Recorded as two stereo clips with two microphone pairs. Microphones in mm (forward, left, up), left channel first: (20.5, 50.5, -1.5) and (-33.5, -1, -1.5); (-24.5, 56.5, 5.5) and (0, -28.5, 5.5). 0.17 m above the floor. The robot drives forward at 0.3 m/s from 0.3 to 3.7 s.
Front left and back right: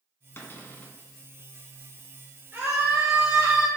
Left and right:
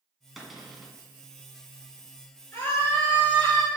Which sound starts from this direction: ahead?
A cupboard door, at 0.4 s.